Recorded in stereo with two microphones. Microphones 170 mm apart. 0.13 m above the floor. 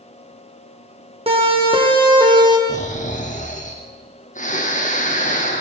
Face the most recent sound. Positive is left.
turn(degrees=45)  # may be behind; listen again after turning